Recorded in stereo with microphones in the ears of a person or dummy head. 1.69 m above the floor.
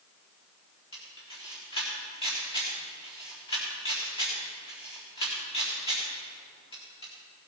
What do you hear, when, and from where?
0.9 s a camera shutter: 25° left (ahead or behind), 4.5 m